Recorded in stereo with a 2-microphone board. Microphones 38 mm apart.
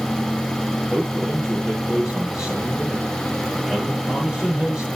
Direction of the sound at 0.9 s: 15° right (ahead or behind).